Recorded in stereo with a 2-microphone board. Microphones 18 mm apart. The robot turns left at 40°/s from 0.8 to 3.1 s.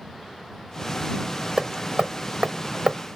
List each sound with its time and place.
1.6 s hammering: 35° right (ahead or behind); by 3.2 s 55° right (ahead or behind)